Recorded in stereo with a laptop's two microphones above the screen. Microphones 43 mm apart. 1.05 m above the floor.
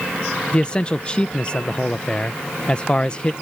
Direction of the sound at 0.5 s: 25° left (ahead or behind).